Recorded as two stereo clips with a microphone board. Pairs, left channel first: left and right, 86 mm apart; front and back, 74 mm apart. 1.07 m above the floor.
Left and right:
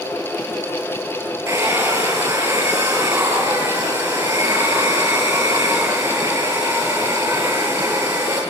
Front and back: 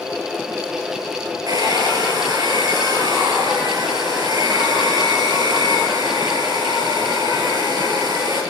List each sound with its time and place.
1.5 s a hair dryer: 145° right, 10 m